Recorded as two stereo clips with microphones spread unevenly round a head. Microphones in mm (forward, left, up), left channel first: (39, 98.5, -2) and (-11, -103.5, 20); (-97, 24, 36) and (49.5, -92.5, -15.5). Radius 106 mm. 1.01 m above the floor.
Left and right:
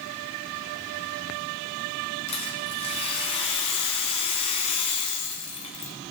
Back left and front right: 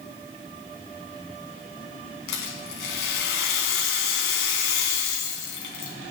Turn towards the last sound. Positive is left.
turn(degrees=140)